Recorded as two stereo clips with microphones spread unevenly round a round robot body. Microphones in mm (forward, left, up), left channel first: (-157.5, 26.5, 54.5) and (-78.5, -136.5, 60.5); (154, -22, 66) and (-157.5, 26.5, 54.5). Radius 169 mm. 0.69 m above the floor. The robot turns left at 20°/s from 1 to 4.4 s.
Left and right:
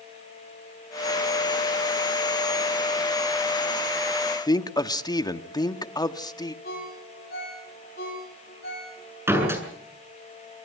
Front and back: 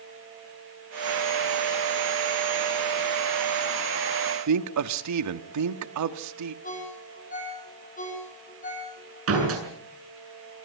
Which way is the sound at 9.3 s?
140° right.